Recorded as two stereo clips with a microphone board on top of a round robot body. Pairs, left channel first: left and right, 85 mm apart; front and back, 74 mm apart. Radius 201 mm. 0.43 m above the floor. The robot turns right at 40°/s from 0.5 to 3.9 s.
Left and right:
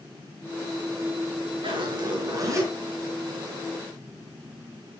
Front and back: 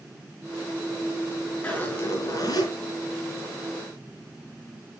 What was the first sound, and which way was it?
A zipper, 75° right.